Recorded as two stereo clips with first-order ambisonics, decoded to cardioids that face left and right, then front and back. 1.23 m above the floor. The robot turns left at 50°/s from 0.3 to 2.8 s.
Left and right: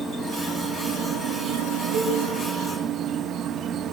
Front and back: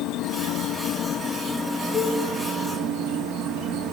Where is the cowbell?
110° right, 5 m; by 2.2 s 120° right, 5 m.